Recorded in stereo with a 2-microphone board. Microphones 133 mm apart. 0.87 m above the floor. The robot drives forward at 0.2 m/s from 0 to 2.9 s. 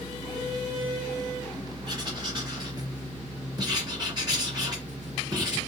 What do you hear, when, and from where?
1.9 s writing: 40° right (ahead or behind), 1.3 m; by 5.6 s 35° right (ahead or behind), 1.4 m